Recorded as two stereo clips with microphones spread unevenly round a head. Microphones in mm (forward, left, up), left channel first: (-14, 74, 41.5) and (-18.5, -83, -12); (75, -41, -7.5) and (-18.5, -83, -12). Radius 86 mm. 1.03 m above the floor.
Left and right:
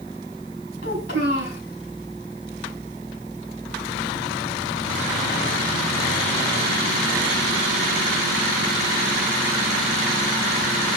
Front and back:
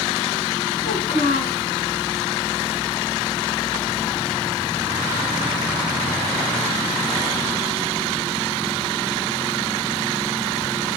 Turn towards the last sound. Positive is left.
turn(degrees=80)